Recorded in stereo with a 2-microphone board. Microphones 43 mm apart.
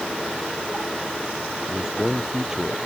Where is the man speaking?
5° right (ahead or behind); by 2.8 s 15° right (ahead or behind).